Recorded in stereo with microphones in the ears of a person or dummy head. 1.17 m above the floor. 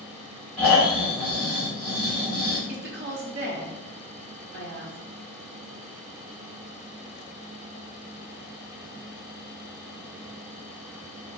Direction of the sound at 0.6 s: 10° left (ahead or behind).